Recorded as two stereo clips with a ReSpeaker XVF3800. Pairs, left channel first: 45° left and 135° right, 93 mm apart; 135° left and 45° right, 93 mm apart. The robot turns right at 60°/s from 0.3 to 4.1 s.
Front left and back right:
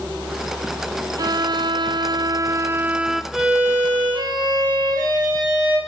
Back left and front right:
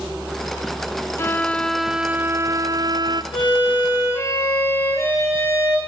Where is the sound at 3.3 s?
140° left, 7 m; by 5.8 s 170° right, 7 m.